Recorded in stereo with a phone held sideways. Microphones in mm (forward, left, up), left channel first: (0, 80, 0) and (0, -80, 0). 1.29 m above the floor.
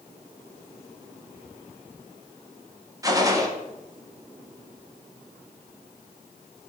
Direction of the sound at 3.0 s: 20° right (ahead or behind).